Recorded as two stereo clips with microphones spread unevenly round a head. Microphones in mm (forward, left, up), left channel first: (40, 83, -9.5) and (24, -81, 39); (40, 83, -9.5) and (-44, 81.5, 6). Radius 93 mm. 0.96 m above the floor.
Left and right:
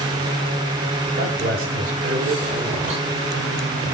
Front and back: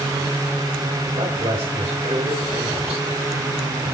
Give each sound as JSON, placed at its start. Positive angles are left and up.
{"t": 1.1, "sound": "a man speaking", "azimuth_deg": -135, "distance_m": 5.0}